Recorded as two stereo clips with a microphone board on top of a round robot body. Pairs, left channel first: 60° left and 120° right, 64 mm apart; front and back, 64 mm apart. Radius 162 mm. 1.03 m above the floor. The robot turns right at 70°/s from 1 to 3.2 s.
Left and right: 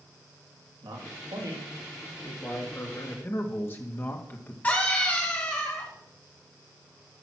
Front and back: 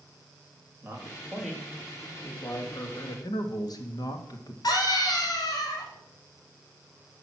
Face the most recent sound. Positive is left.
turn(degrees=-5)